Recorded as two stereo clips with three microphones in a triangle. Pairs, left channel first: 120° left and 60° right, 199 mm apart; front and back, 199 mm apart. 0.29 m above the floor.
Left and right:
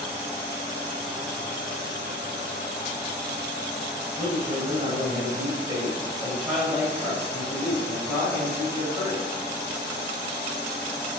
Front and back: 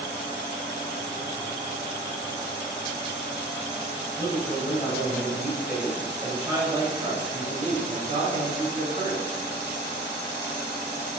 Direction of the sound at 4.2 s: 60° right.